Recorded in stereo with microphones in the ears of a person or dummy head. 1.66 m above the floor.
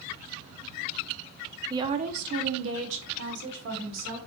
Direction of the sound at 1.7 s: 20° right (ahead or behind).